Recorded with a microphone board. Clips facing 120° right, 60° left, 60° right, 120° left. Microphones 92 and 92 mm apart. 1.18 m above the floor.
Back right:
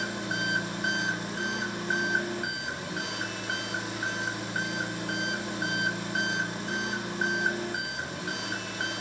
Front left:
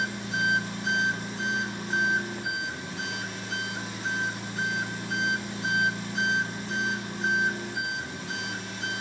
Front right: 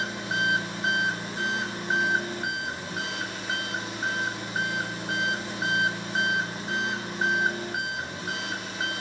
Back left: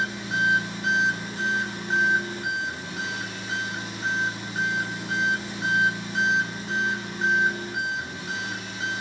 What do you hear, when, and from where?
0.0 s an engine running: 115° right, 3.5 m